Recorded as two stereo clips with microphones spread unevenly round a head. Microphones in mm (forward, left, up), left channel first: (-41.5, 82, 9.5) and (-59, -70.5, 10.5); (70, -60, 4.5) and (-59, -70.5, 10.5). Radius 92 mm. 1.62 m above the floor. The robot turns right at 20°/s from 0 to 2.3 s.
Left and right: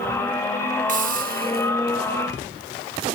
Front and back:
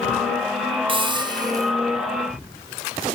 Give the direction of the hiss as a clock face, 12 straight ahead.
4 o'clock.